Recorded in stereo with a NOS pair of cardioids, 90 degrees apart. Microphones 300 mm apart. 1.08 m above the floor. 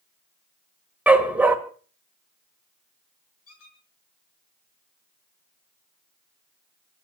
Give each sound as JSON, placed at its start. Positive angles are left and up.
{"t": 1.1, "sound": "a dog barking", "azimuth_deg": -5, "distance_m": 2.0}
{"t": 3.5, "sound": "a squeak", "azimuth_deg": 50, "distance_m": 5.5}